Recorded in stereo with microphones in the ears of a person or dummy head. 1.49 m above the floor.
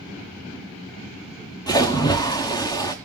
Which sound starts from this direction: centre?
A splash, at 1.7 s.